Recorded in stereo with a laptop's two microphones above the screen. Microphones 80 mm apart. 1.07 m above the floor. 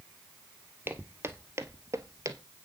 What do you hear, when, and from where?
0.9 s footsteps: 25° right (ahead or behind), 1.7 m; by 2.4 s 45° right (ahead or behind), 1.5 m